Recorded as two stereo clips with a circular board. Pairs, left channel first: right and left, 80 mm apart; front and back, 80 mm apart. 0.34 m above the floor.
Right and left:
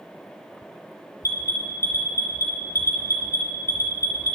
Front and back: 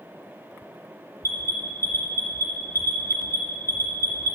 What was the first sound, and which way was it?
An alarm, 130° right.